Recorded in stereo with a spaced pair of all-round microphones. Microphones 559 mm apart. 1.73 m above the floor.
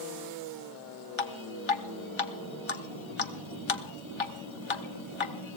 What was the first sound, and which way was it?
Dripping, 55° left (ahead or behind).